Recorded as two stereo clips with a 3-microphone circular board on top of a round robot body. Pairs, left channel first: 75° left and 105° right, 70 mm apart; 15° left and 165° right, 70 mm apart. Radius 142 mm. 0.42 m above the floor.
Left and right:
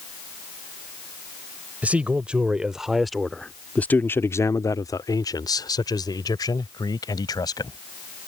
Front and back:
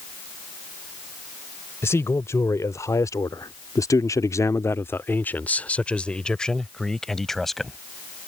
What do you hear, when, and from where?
1.8 s a man speaking: 35° right; by 7.8 s 100° left